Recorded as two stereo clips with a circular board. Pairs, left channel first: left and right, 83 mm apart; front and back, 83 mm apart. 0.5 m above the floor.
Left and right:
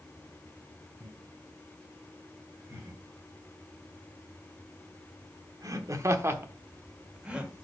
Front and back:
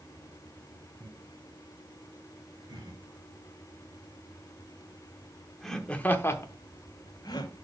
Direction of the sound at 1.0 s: 155° right.